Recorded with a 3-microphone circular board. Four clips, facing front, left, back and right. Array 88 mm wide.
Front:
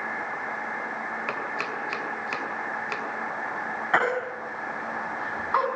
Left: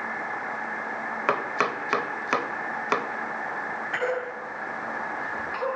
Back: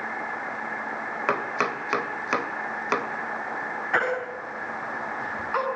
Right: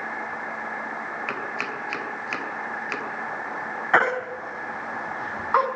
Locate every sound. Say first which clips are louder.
1.3 s chopping: left 5 dB, back 9 dB; 125° left, 2.5 m
3.9 s a baby crying: right 8 dB, front 2 dB; 70° right, 4.5 m